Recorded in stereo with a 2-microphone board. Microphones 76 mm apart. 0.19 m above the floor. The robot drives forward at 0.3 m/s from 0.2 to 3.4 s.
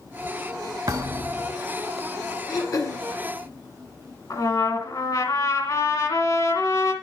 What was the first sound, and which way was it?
A thud, 50° right (ahead or behind).